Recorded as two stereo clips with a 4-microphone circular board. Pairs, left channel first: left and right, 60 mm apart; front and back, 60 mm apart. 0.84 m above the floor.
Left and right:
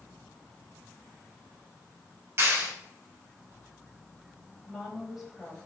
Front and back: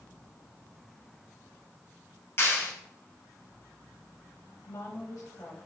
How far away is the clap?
About 3.5 m.